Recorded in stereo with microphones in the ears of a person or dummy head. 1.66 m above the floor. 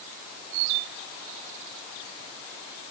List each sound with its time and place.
Only background noise.